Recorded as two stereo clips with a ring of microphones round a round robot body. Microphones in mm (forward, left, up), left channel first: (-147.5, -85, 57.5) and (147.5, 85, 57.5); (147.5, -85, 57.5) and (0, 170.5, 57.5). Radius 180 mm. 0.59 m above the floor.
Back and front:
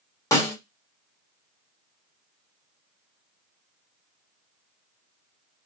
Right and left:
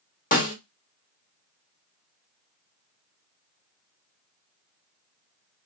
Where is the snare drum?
80° right, 1.3 m.